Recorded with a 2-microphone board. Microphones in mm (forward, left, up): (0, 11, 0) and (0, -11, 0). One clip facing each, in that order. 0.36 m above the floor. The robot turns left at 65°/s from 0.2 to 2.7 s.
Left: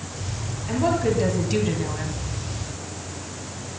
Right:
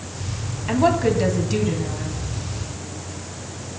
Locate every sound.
0.7 s a woman speaking: 130° right, 3 m; by 2.2 s 130° left, 3 m